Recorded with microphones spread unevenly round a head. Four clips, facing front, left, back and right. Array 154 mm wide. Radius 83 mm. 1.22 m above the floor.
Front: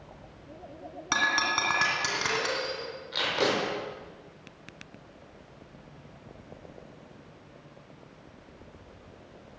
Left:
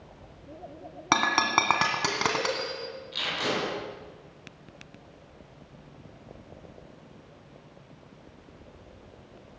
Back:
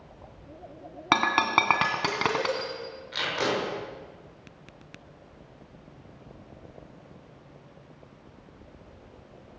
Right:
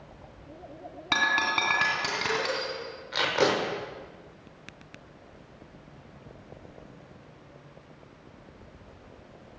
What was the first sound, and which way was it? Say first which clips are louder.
Breaking glass: left 3 dB, back 5 dB; 140° left.